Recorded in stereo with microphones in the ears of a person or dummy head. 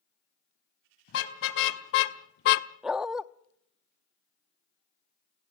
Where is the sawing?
No sawing in this recording.